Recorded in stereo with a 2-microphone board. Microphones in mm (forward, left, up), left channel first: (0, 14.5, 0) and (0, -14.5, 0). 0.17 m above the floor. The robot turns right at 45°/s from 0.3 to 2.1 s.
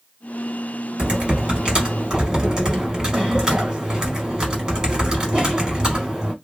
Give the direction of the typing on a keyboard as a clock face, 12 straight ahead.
3 o'clock.